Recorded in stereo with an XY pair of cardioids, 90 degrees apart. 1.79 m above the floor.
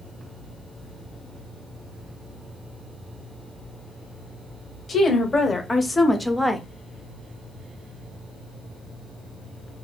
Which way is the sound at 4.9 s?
45° left.